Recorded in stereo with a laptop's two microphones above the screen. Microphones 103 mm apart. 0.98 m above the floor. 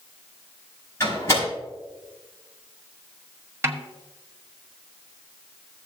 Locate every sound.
1.0 s a door slam: 25° left (ahead or behind), 4.5 m
3.6 s a snare drum: 25° right (ahead or behind), 0.9 m